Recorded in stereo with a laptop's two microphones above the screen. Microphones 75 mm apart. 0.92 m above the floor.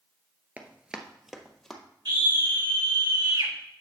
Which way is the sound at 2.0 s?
70° right (ahead or behind).